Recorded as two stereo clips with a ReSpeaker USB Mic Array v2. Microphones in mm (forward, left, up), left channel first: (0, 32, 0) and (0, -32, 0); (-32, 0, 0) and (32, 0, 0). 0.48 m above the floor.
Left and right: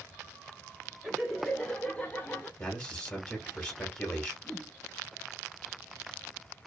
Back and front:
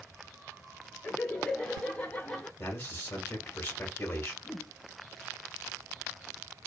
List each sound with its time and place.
1.0 s laughter: 140° right, 1.3 m; by 2.5 s 135° left, 1.5 m
2.6 s a man speaking: 150° left, 1.5 m
4.4 s a whoosh: 175° left, 1.0 m